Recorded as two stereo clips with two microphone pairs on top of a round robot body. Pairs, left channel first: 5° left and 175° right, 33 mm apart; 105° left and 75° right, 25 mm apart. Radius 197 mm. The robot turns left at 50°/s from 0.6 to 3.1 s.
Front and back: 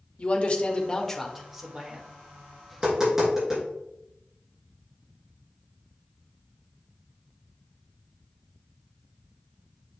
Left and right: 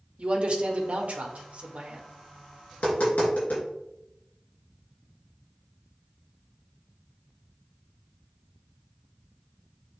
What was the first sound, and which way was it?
A man speaking, 50° right.